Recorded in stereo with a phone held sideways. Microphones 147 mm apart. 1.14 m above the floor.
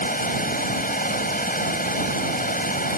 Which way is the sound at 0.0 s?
65° left (ahead or behind).